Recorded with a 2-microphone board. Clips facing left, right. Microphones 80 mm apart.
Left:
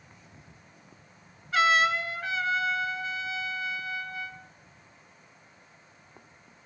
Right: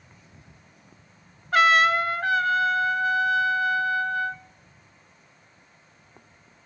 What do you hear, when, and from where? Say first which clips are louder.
1.5 s a trumpet: right 5 dB; 55° right (ahead or behind), 0.8 m